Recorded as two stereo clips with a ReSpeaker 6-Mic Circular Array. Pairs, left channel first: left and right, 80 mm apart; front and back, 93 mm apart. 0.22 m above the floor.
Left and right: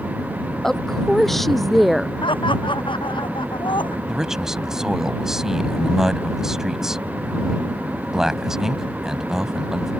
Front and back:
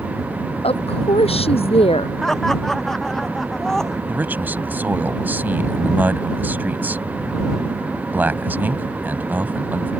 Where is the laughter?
85° left.